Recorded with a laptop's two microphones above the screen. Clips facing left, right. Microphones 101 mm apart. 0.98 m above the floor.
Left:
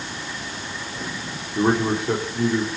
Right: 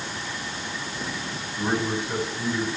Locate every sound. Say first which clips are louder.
1.6 s a man speaking: left 6 dB; 70° left (ahead or behind), 3 m